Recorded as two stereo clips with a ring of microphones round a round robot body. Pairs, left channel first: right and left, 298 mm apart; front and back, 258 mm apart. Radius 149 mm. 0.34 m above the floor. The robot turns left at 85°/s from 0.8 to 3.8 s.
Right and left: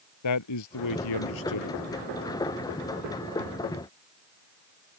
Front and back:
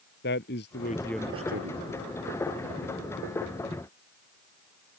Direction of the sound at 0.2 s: 60° right.